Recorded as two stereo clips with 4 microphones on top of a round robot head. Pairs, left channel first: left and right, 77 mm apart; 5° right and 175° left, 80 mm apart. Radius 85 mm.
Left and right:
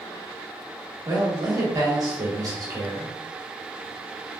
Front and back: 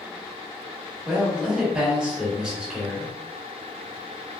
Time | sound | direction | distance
1.1 | a man speaking | 105° right | 1.6 m